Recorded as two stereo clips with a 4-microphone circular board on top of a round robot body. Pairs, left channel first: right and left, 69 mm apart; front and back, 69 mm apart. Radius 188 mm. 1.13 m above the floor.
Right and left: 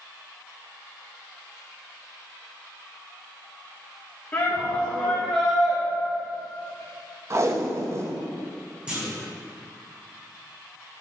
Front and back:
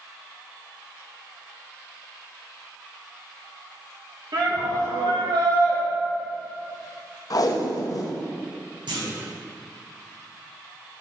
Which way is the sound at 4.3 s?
160° right.